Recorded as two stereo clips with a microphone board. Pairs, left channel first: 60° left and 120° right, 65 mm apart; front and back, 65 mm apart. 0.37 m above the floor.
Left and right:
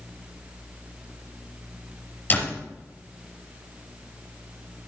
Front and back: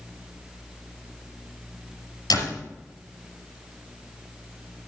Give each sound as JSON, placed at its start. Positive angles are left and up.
{"t": 2.3, "sound": "a door slam", "azimuth_deg": 0, "distance_m": 4.5}